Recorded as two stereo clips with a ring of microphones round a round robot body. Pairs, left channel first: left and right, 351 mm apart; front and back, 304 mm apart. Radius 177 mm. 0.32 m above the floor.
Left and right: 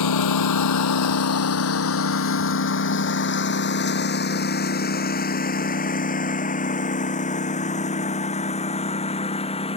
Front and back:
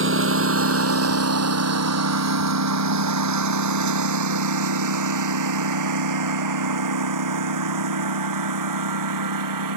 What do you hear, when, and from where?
0.0 s a lawn mower: 130° left; by 9.8 s 165° left